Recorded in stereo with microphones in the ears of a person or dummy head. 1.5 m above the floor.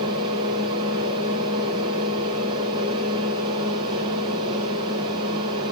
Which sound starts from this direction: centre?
A fan, at 0.0 s.